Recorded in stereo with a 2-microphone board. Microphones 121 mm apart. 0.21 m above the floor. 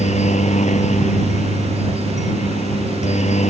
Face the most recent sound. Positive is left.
turn(degrees=70)  # may be behind; listen again after turning